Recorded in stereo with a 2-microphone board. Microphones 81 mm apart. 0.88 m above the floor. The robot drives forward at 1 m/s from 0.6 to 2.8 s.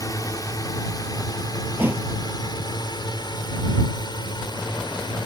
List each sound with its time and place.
0.0 s a drone: 45° left (ahead or behind); by 5.3 s 65° left (ahead or behind)
1.8 s a thud: 25° right (ahead or behind); by 2.1 s 20° right (ahead or behind)